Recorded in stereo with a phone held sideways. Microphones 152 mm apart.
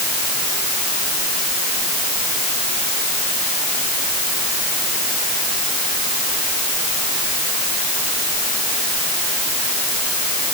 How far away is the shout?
No shout in this recording.